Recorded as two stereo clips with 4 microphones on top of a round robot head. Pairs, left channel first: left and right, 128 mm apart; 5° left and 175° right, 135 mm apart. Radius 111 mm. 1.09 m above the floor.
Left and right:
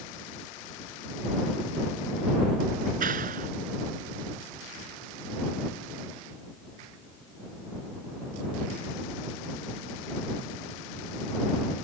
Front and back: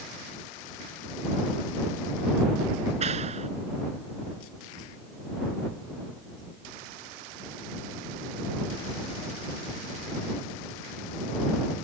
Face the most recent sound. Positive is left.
turn(degrees=-120)